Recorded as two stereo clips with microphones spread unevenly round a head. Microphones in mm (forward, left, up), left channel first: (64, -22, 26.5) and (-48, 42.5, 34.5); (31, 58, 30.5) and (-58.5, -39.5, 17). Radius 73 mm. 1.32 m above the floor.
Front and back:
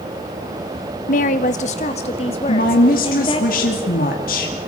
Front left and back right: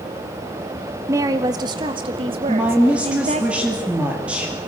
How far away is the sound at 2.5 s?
About 2.5 m.